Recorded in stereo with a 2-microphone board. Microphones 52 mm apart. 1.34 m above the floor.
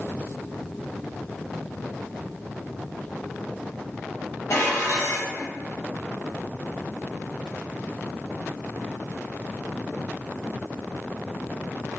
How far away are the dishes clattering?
About 0.8 m.